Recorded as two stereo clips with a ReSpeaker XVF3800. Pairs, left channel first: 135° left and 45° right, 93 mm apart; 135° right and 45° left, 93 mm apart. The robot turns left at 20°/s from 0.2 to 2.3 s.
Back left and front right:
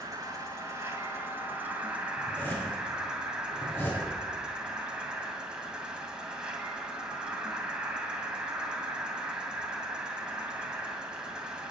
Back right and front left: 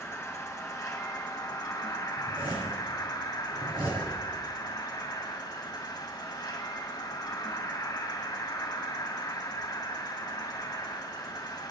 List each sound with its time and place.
0.0 s an insect: 80° right, 1.7 m; by 11.7 s 125° right, 1.7 m
2.2 s a zipper: 75° left, 5 m; by 4.0 s 70° left, 5 m